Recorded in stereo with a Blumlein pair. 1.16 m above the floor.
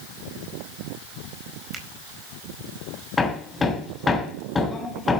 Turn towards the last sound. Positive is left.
turn(degrees=15)